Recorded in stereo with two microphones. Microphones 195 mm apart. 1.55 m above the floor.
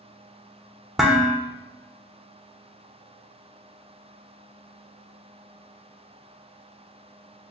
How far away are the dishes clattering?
About 0.5 m.